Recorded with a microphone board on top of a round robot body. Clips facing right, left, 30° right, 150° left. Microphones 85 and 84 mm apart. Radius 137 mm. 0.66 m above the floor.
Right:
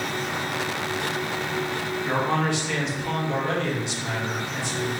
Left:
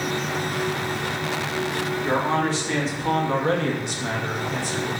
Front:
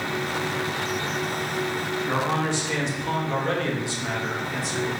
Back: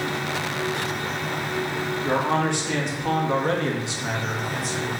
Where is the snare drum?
No snare drum in this recording.